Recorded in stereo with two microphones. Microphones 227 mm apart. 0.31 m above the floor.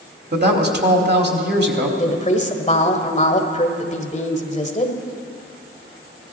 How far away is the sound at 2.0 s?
About 1.3 m.